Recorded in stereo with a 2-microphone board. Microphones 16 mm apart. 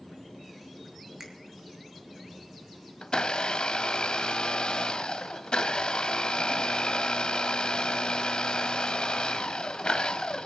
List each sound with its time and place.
1.2 s a finger snap: 30° right (ahead or behind), 5 m
3.0 s a blender: 80° left, 1.0 m